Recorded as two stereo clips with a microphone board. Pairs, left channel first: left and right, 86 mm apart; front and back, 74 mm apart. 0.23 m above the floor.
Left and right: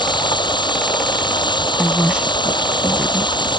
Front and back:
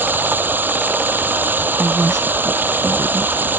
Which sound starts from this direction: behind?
A woman speaking, at 1.8 s.